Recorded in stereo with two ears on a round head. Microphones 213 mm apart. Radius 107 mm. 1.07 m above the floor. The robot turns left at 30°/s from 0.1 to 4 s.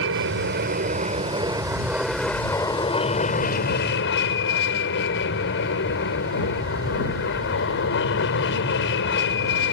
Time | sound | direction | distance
0.0 | an aircraft | 120° right | ?